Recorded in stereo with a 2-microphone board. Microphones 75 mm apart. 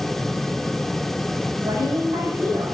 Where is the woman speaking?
75° right (ahead or behind), 4 m.